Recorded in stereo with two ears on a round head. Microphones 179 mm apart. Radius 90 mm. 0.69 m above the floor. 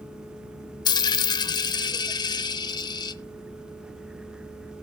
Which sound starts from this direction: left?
A dropped coin, at 0.8 s.